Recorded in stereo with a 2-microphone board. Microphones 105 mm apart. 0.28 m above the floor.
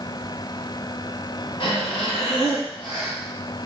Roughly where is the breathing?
Left.